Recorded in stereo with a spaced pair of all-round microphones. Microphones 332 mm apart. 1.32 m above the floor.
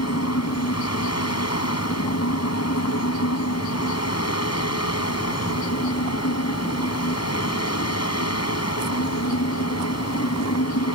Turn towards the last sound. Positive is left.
turn(degrees=50)  # may be behind; listen again after turning